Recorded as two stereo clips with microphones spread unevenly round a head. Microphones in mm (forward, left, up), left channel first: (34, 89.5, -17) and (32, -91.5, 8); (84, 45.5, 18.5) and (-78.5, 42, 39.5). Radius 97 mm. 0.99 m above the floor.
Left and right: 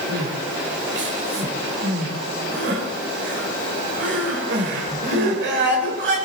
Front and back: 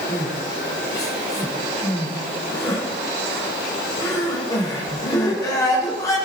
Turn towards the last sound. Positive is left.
turn(degrees=-75)